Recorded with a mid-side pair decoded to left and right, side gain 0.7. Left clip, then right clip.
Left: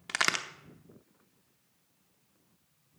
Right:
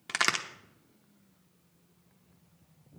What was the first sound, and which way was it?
A crack, straight ahead.